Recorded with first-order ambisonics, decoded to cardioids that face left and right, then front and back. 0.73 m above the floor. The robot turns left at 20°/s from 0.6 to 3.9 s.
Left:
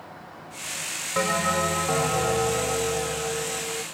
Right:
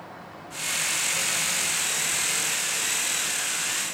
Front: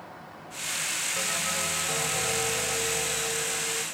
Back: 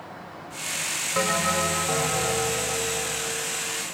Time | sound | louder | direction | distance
1.1 | a bell | left 3 dB, back 10 dB | 130° left | ?